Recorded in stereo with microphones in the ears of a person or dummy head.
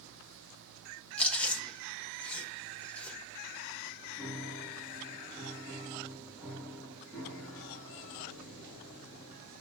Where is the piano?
Centre (ahead or behind), 3 m.